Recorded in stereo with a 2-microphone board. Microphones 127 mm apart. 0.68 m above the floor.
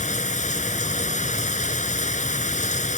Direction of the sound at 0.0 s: 70° left (ahead or behind).